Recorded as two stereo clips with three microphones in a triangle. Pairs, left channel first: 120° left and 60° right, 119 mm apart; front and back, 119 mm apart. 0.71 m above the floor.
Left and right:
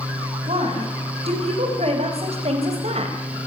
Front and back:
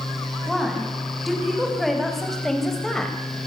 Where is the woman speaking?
90° right, 6 m; by 3.4 s 85° right, 4 m.